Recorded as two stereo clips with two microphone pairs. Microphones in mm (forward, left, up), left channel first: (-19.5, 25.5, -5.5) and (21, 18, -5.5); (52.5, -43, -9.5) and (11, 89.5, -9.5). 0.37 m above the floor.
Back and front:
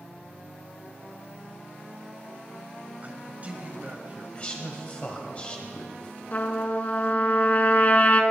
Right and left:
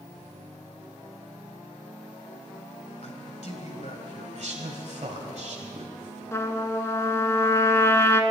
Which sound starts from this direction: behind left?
A man speaking, at 4.3 s.